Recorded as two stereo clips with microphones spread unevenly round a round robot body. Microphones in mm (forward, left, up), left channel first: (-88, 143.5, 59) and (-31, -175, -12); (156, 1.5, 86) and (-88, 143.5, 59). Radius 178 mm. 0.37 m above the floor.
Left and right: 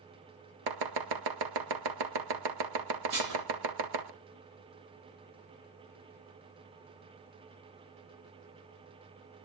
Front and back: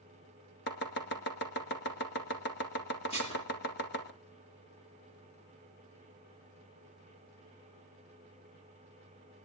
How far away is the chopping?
About 1.9 m.